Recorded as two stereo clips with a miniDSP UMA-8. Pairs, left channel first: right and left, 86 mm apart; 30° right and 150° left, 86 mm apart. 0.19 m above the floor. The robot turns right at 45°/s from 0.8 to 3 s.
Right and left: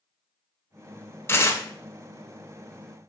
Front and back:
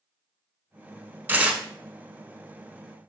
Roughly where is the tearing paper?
Behind right.